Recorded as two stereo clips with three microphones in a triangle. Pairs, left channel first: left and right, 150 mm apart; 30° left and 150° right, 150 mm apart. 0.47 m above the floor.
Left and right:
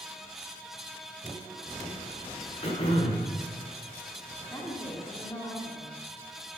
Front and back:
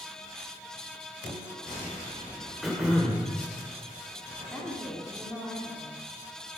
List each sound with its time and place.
2.6 s throat clearing: 120° left, 1.4 m
4.5 s a woman speaking: 115° left, 1.1 m